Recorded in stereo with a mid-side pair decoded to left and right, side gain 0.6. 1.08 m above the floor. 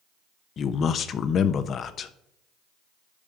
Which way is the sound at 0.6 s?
45° left.